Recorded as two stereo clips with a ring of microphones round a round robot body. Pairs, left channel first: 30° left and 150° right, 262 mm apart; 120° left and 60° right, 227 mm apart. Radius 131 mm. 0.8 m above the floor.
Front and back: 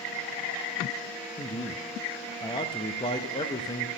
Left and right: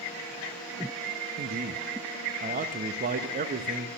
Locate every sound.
1.4 s a man speaking: 35° right, 0.7 m